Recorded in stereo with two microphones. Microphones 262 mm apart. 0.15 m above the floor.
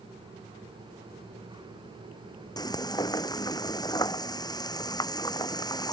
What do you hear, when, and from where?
2.6 s frying: 15° left (ahead or behind)